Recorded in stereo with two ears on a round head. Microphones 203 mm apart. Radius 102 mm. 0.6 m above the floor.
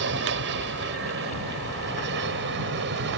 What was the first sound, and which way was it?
An aircraft, 55° right (ahead or behind).